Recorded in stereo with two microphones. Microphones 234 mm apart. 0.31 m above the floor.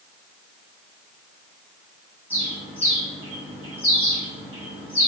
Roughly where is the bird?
Centre.